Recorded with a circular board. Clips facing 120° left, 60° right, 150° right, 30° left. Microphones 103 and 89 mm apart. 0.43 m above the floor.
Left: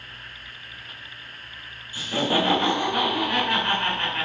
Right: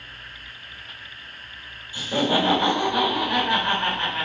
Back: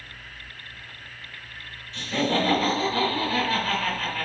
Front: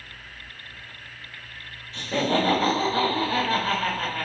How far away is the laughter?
About 1.5 m.